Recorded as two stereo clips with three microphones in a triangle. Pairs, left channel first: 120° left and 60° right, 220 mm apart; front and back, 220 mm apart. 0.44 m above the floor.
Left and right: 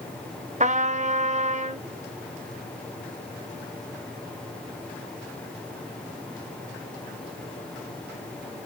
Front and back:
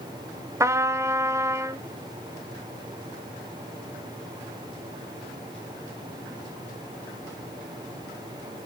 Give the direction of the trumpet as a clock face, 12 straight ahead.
3 o'clock.